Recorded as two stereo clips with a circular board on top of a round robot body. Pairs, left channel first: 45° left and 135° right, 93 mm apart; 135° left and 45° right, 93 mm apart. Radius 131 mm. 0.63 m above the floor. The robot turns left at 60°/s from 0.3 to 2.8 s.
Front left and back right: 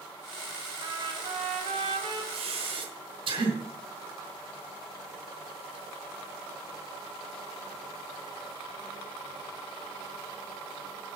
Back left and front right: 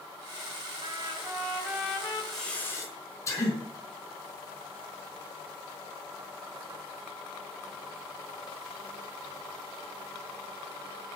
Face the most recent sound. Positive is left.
turn(degrees=-165)